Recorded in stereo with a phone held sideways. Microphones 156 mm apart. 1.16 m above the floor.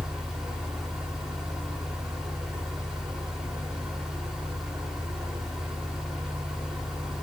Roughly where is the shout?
I don't hear a shout.